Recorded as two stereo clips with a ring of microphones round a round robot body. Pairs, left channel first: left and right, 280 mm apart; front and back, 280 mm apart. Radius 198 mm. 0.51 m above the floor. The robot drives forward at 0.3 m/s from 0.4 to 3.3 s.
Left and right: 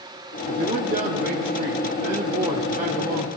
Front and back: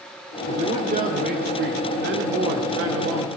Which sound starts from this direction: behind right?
A man speaking, at 0.5 s.